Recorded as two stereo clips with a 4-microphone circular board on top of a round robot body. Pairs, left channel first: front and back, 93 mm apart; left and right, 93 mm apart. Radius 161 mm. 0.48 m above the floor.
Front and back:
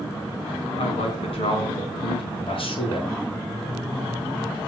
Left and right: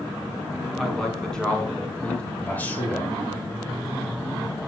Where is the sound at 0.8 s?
5° left, 6 m; by 2.3 s 15° left, 6 m.